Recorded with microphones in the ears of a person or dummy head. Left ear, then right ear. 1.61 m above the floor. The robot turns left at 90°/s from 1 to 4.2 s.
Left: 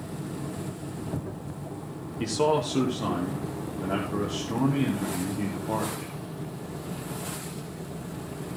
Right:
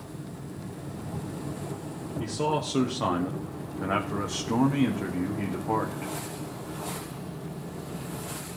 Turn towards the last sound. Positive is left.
turn(degrees=-145)